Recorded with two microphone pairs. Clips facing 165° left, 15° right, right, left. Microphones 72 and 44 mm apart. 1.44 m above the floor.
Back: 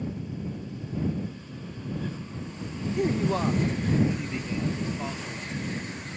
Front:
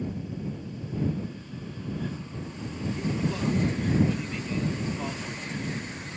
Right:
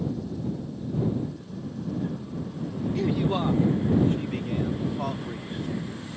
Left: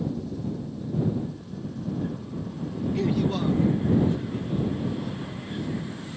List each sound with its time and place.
3.0 s a man speaking: 175° left; by 6.0 s 100° right